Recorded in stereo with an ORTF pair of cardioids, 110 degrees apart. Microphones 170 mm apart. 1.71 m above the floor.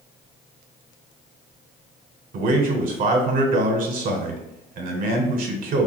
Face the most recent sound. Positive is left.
turn(degrees=-60)